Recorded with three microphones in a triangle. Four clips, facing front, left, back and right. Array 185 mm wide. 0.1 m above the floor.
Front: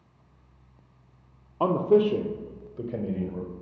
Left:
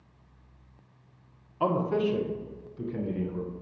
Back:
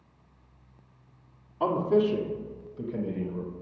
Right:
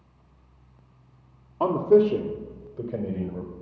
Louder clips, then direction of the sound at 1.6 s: Right 8 dB, front 3 dB; 30° right.